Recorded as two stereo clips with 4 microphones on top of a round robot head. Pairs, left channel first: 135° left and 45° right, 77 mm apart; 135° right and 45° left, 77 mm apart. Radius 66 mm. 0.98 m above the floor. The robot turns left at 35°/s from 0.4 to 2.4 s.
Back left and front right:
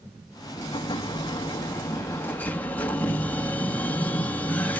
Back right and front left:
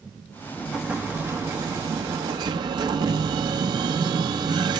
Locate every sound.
0.6 s an explosion: 130° left, 1.4 m; by 4.8 s 65° left, 1.4 m